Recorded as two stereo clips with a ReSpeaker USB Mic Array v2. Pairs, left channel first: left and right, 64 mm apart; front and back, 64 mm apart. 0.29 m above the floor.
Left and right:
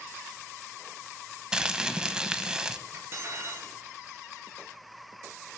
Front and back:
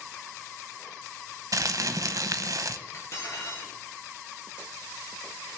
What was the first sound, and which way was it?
Crumpling, 170° right.